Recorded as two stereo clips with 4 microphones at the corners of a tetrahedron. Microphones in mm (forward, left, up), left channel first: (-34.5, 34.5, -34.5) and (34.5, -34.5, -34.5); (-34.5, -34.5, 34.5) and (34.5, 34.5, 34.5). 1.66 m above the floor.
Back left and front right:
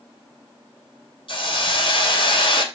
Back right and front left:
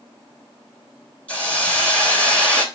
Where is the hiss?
150° left, 2.5 m.